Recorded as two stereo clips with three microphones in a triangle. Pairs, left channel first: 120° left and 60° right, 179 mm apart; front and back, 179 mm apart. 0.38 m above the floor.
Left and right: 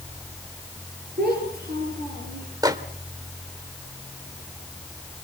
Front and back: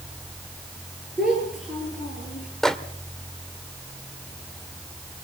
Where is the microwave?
85° right, 1.0 m.